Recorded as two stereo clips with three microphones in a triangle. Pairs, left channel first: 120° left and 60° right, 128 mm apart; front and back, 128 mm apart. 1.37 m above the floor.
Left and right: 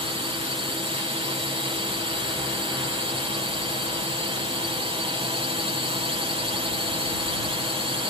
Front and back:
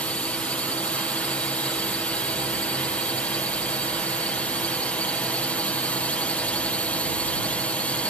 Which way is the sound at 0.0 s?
75° right.